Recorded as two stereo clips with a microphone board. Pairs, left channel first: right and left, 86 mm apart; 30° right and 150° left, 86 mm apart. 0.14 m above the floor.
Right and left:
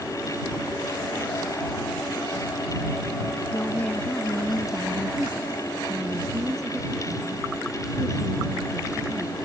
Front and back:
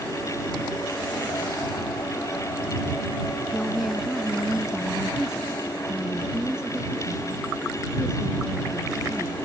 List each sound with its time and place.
3.5 s a woman speaking: 125° right; by 9.3 s 70° left